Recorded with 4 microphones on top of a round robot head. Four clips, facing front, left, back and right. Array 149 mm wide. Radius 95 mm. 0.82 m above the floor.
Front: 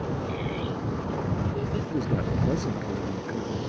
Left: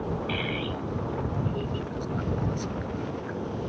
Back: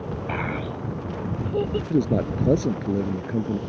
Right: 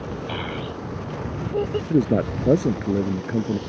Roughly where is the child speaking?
Behind right.